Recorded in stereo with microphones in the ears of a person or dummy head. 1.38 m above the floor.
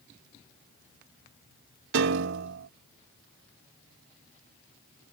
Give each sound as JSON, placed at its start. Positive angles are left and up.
{"t": 1.9, "sound": "a piano", "side_deg": -65}